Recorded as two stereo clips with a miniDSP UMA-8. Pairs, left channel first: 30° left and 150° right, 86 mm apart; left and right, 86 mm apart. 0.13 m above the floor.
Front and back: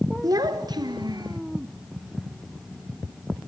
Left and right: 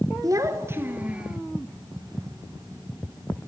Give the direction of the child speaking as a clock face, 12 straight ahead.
4 o'clock.